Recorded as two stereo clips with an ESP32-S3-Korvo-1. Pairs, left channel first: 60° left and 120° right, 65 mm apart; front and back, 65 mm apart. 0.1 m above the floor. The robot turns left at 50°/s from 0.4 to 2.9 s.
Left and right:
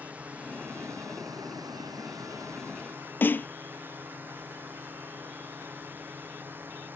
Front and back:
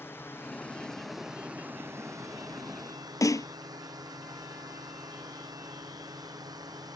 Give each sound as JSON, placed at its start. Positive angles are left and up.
{"t": 0.0, "sound": "a drone", "azimuth_deg": -55}
{"t": 3.2, "sound": "a snare drum", "azimuth_deg": 5}